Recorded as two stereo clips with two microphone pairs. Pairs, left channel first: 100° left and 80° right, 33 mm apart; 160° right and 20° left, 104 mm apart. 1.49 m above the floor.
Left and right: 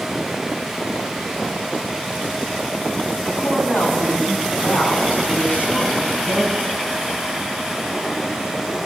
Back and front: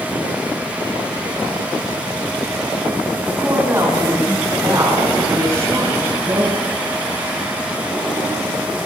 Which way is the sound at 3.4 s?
90° left.